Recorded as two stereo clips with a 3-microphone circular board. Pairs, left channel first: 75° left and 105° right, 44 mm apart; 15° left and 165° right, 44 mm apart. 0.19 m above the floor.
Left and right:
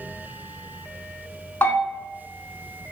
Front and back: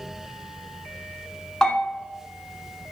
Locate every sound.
1.6 s a bell: 90° left, 0.8 m